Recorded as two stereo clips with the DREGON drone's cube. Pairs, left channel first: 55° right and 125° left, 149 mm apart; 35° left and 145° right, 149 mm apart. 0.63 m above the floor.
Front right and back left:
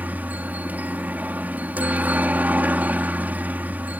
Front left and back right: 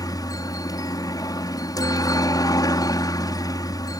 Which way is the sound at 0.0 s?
60° left.